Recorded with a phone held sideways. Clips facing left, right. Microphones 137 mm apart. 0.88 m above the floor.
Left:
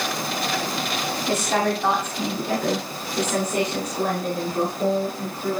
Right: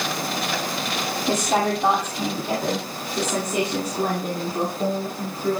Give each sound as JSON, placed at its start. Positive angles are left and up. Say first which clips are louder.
{"t": 1.3, "sound": "a woman speaking", "louder": "right 1 dB", "side_deg": -20, "distance_m": 2.5}